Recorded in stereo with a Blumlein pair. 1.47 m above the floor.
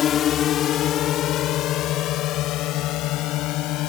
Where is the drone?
25° left; by 3.9 s 40° left.